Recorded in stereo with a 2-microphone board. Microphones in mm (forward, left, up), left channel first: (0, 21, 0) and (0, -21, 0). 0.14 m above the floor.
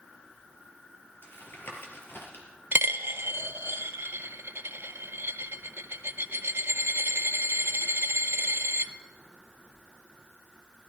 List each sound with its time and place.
1.2 s tapping: 65° left (ahead or behind), 3 m
2.7 s a dropped coin: 75° right (ahead or behind), 0.6 m